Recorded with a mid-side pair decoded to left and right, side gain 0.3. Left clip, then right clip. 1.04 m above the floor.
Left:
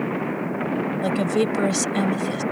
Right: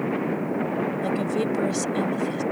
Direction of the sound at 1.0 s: 65° left.